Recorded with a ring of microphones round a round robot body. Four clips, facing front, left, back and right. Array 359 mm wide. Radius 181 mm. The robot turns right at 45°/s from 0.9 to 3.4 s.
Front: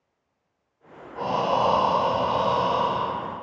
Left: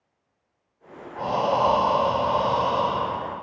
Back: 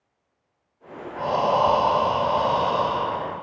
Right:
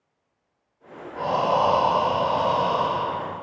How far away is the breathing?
About 0.7 m.